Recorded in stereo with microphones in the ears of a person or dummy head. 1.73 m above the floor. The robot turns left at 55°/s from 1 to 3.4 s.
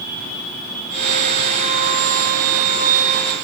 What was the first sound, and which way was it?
Only background noise.